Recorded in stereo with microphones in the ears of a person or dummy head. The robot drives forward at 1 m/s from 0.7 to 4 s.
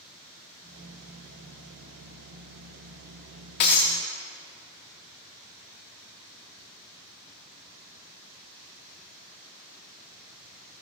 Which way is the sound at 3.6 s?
30° left (ahead or behind).